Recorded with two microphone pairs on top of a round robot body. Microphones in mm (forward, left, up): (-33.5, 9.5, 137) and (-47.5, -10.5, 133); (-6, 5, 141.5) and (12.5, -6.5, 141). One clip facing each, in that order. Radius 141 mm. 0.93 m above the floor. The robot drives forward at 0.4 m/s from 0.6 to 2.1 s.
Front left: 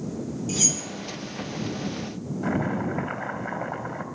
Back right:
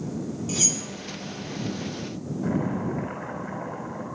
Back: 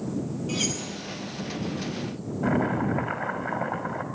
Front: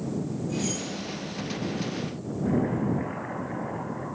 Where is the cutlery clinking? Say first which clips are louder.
Even, back 3 dB; 145° left, 3 m; by 0.8 s 150° left, 3.5 m.